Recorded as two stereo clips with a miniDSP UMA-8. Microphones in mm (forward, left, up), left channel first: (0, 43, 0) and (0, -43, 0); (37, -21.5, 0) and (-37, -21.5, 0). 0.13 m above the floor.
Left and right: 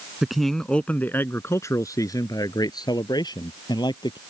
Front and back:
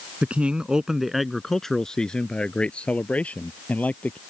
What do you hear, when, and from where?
0.2 s a man speaking: 165° right; by 4.2 s 70° left